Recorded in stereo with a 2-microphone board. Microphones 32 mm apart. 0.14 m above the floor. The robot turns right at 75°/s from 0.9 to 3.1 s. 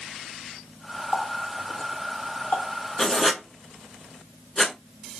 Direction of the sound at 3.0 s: 15° left (ahead or behind).